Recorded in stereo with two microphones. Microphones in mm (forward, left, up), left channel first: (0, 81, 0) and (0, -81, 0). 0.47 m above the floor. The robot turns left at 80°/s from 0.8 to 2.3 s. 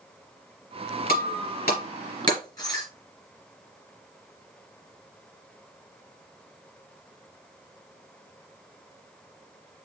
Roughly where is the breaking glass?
Left.